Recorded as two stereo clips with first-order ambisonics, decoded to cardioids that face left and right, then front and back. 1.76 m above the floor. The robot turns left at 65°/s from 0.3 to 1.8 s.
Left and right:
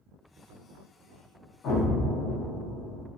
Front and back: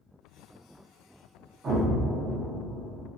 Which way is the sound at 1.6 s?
120° left.